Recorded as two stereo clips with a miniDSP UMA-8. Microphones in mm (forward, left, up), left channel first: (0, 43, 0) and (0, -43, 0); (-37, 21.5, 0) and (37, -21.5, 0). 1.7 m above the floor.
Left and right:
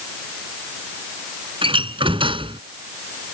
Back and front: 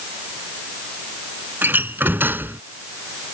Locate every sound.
1.6 s a door slam: 95° right